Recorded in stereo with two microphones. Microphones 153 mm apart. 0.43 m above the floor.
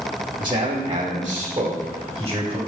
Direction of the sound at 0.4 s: 35° right (ahead or behind).